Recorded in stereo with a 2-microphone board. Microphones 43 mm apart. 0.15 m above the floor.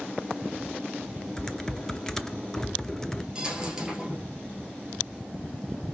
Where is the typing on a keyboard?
15° left (ahead or behind), 0.6 m.